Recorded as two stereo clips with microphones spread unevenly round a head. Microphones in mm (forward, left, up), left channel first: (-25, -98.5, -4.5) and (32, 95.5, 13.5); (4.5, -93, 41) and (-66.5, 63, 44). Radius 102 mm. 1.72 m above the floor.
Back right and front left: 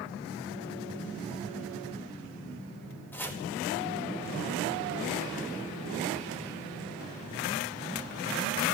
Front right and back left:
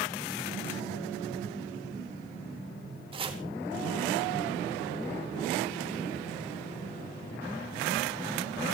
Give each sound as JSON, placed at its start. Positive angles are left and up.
{"t": 3.1, "sound": "chopping", "azimuth_deg": 170, "distance_m": 4.0}